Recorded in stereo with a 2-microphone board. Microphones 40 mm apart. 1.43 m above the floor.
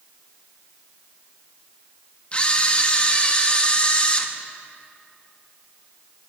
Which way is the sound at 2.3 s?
30° left (ahead or behind).